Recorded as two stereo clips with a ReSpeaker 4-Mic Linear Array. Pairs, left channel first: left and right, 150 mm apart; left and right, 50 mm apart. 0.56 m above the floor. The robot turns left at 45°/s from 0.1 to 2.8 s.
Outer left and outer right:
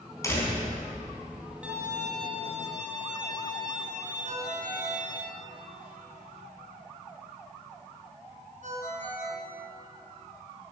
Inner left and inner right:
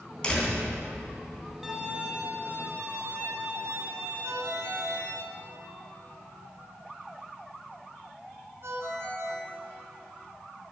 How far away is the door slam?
About 3.5 m.